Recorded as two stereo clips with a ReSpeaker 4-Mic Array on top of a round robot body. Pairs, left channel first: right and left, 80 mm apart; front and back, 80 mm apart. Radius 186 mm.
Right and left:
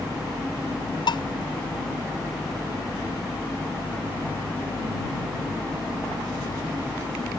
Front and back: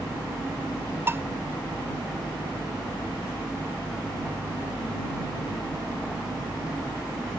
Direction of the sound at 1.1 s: 115° right.